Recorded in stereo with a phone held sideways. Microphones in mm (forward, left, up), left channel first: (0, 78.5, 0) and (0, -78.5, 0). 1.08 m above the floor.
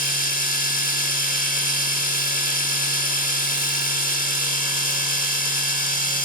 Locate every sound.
0.0 s a machine running: 60° left (ahead or behind), 0.9 m